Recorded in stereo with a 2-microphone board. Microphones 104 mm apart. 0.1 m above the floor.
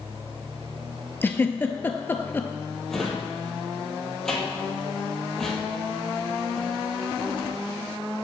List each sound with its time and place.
1.2 s a giggle: 20° left (ahead or behind), 0.6 m
2.9 s a drawer: 5° left (ahead or behind), 1.5 m